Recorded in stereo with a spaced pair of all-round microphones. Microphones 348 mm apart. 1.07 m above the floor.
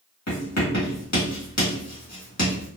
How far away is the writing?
About 1.6 m.